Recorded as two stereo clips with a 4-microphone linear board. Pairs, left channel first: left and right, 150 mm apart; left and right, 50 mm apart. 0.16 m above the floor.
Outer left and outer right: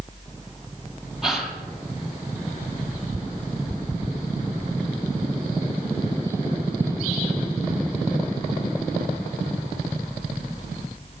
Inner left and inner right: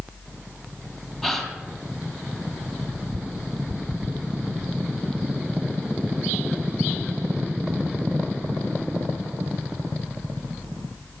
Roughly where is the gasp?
Centre.